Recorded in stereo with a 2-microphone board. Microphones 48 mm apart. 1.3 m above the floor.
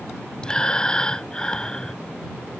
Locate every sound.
0.4 s breathing: 15° left (ahead or behind)